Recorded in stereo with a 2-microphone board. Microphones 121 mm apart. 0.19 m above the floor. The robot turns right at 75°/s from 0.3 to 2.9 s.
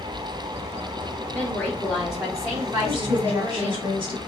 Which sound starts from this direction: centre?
A woman speaking, at 1.3 s.